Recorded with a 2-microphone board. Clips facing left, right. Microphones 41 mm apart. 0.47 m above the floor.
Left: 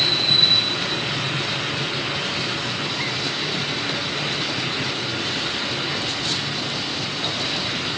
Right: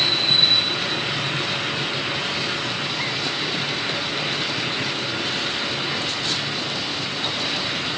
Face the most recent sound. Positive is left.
No sound to turn to.